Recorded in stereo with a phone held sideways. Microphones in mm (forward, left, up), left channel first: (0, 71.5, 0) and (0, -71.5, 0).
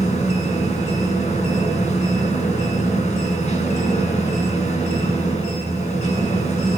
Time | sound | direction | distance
0.0 | a machine running | 50° left (ahead or behind) | 8.5 m